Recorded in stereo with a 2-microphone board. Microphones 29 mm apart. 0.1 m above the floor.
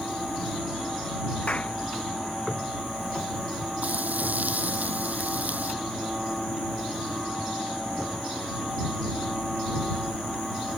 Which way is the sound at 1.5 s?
50° left (ahead or behind).